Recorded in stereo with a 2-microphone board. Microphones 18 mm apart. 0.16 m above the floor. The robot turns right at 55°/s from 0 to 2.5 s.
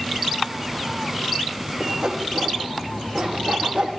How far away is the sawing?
About 4.5 m.